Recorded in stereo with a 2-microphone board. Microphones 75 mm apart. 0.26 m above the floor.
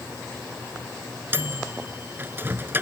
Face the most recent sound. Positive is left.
turn(degrees=-30)  # may be behind; listen again after turning